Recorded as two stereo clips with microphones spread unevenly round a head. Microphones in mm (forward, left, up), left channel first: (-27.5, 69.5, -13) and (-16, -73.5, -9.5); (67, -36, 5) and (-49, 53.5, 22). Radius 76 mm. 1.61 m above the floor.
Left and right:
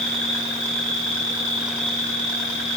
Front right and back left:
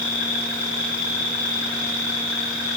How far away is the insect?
About 1.5 m.